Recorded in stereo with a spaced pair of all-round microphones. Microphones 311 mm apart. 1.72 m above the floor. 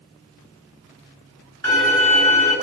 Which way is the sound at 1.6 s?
35° right (ahead or behind).